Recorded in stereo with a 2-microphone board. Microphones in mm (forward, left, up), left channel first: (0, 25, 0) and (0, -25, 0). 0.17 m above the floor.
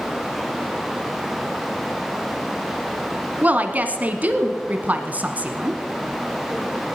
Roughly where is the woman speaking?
Right.